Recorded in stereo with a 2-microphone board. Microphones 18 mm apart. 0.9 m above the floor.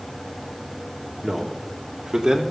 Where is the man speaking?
20° right (ahead or behind), 2.0 m; by 2.4 s 50° right (ahead or behind), 1.9 m.